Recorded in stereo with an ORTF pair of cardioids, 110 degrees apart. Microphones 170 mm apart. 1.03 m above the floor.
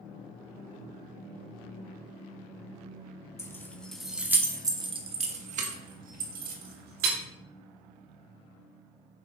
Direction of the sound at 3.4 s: 15° left.